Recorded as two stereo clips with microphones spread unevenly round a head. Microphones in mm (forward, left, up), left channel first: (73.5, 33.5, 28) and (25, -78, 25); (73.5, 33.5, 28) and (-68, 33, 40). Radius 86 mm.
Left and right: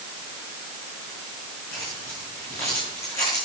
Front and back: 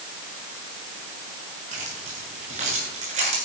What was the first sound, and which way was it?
Keys jangling, 145° left.